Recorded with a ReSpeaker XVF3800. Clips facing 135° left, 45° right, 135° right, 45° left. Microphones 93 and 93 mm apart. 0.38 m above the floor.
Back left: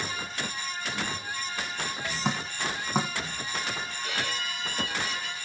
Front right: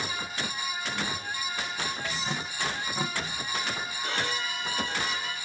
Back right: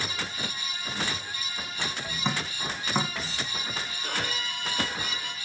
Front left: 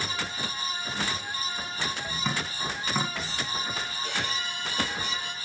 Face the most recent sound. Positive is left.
turn(degrees=-100)